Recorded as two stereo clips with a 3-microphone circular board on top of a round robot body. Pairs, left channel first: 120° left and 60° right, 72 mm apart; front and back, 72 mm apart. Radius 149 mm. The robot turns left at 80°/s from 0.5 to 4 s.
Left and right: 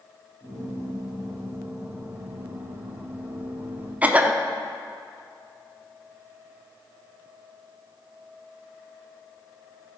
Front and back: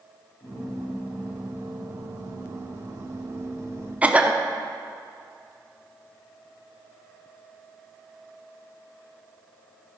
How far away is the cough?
About 1.2 m.